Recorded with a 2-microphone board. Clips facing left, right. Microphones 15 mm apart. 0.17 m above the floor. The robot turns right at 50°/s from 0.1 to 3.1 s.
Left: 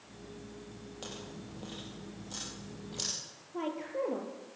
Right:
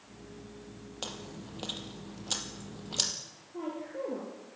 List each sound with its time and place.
1.0 s chewing: 35° right (ahead or behind), 4.5 m; by 3.1 s 40° right (ahead or behind), 4.5 m
3.5 s a woman speaking: 40° left (ahead or behind), 5 m